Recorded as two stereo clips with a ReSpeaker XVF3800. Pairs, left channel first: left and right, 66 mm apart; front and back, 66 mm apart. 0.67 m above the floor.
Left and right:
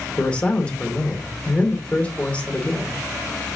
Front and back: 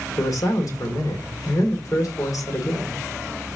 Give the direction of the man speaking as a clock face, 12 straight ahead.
11 o'clock.